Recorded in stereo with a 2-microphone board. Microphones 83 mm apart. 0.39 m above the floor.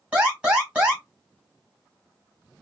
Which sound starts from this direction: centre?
An alarm, at 0.1 s.